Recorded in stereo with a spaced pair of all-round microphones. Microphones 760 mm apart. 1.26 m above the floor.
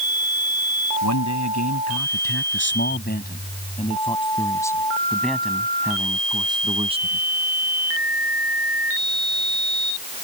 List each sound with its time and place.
1.0 s a man speaking: 25° left (ahead or behind); by 7.2 s 10° right (ahead or behind)